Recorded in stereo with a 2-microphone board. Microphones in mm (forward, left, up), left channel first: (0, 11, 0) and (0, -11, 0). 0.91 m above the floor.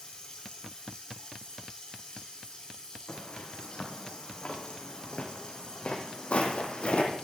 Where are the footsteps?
70° left (ahead or behind), 4.5 m; by 7.2 s 50° left (ahead or behind), 2 m.